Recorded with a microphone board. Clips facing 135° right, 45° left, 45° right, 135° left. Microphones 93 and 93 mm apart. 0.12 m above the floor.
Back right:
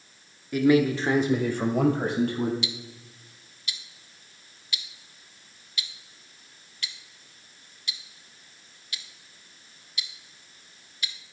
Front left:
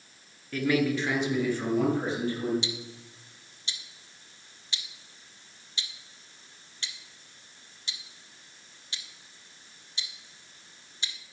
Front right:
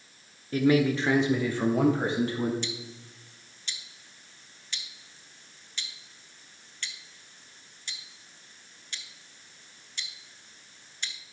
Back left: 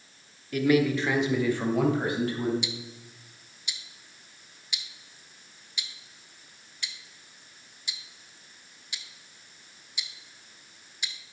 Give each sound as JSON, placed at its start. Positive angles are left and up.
{"t": 0.5, "sound": "a man speaking", "azimuth_deg": -70, "distance_m": 1.3}
{"t": 2.6, "sound": "ticking", "azimuth_deg": 65, "distance_m": 0.7}